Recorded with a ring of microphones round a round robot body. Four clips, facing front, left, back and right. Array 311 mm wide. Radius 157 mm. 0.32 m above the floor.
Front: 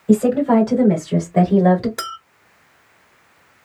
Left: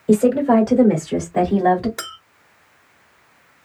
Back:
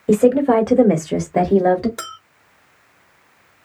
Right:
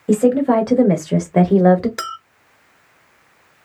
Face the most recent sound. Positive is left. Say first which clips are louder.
# right 6 dB, front 4 dB
turn(degrees=-65)